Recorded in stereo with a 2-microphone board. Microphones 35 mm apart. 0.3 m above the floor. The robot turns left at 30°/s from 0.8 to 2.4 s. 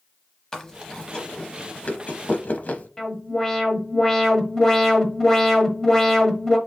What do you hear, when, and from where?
0.5 s chewing: 15° left (ahead or behind), 0.8 m; by 2.9 s 50° left (ahead or behind), 0.8 m
3.0 s an alarm: 15° left (ahead or behind), 1.1 m